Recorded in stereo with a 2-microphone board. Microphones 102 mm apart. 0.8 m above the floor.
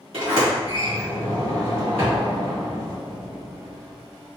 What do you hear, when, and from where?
0.1 s a sliding door: 60° right (ahead or behind), 1.8 m